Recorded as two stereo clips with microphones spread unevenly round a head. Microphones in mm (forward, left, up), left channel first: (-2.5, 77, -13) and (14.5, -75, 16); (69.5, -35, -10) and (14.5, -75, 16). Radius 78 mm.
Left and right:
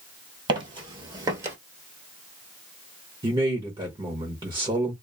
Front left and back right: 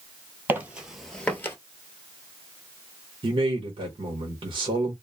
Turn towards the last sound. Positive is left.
turn(degrees=-150)